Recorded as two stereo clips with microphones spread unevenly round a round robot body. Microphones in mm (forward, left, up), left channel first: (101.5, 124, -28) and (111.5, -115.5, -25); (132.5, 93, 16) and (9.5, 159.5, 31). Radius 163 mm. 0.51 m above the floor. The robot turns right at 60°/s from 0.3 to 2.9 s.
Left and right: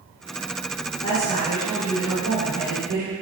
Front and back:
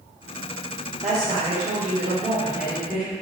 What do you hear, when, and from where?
1.0 s a woman speaking: 140° left, 1.4 m; by 3.1 s 105° right, 1.4 m